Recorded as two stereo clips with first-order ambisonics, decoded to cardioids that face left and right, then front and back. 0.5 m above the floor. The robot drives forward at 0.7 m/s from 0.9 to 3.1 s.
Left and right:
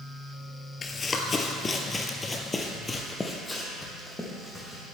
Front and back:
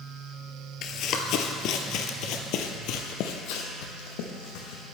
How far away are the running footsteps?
About 0.6 m.